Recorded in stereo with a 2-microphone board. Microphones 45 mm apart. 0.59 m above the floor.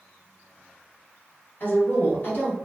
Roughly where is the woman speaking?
Left.